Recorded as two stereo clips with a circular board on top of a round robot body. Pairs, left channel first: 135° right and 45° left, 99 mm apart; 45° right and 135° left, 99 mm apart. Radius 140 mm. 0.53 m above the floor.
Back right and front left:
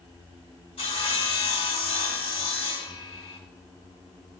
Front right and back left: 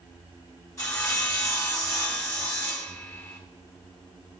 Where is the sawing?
105° right, 3.5 m.